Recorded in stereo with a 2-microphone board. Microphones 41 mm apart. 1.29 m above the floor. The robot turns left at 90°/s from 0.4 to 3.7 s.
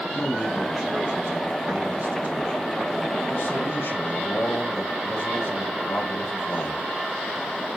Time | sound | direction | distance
0.1 | a man speaking | 25° left | 6.5 m